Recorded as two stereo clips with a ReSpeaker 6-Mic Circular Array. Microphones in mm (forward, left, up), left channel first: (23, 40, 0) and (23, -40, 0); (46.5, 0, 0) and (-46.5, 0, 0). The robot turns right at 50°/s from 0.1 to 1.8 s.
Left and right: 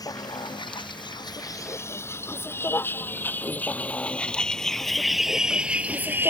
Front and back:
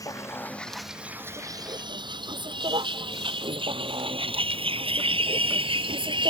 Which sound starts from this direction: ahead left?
A vehicle, at 0.0 s.